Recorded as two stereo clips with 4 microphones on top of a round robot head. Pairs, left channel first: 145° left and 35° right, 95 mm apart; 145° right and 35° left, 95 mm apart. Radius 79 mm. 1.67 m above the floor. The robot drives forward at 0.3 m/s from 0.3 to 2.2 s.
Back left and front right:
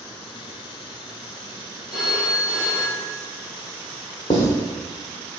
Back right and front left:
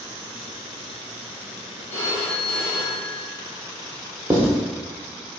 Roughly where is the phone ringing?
Behind right.